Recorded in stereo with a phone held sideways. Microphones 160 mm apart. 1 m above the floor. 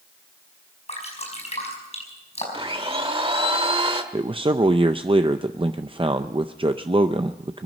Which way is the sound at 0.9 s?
40° left (ahead or behind).